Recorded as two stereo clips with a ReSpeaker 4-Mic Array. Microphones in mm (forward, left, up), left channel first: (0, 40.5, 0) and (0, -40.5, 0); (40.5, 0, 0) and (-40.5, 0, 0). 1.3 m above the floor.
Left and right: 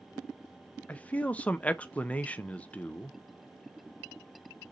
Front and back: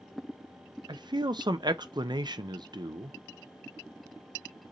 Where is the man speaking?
160° left, 0.6 m.